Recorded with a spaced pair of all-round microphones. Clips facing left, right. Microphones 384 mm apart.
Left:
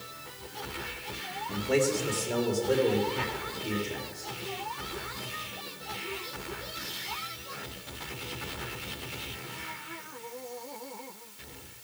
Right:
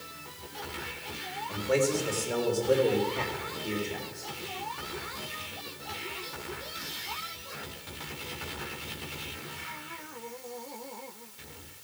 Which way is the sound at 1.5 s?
40° left (ahead or behind).